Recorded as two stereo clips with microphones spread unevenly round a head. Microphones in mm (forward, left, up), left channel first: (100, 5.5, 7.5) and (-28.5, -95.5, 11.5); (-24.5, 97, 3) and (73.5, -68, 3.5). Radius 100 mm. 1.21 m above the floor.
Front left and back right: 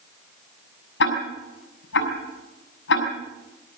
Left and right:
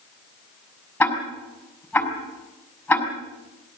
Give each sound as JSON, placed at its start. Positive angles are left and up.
{"t": 1.0, "sound": "ticking", "azimuth_deg": 40, "distance_m": 6.5}